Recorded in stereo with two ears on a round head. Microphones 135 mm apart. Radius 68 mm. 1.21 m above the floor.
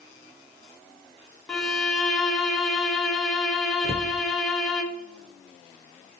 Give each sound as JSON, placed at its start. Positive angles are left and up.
{"t": 1.5, "sound": "a violin", "side_deg": 5, "distance_m": 0.9}
{"t": 3.8, "sound": "a cupboard door", "side_deg": -40, "distance_m": 0.5}